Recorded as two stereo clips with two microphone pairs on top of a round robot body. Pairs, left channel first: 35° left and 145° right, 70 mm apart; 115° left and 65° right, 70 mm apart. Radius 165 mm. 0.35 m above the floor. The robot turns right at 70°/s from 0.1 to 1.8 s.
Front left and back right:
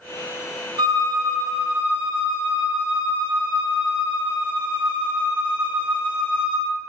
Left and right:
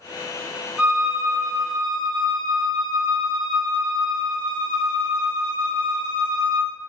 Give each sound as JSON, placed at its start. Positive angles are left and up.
{"t": 0.8, "sound": "a violin", "azimuth_deg": -140, "distance_m": 0.7}